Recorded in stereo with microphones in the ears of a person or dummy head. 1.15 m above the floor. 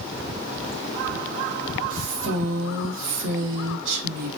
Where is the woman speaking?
75° right (ahead or behind), 1.0 m.